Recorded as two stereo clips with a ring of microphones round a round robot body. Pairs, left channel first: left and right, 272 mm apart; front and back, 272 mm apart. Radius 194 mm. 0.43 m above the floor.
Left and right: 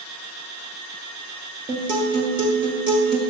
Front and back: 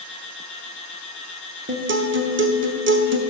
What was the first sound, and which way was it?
A guitar, 160° right.